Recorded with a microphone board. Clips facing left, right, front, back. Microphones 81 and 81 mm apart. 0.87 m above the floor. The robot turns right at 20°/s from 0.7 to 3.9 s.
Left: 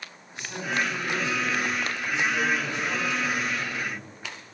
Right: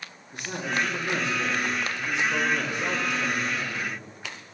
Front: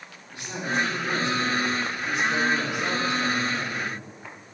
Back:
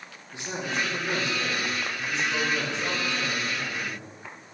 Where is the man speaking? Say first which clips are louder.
Even, front 3 dB; 115° right, 1.9 m; by 4.0 s 50° right, 1.9 m.